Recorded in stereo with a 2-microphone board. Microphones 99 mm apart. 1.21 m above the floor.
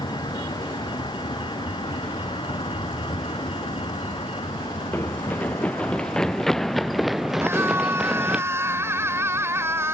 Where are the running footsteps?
20° left (ahead or behind); by 8.4 s 10° right (ahead or behind).